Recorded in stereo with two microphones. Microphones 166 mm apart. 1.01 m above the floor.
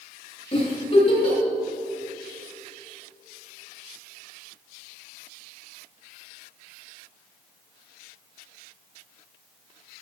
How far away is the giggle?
About 3.5 m.